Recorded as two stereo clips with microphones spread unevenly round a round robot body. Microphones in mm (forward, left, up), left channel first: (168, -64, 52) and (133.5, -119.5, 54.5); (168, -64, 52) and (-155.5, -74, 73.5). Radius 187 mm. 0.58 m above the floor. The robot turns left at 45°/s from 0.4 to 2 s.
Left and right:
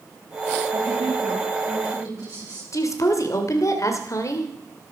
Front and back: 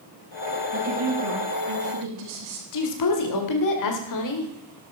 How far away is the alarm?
No alarm in this recording.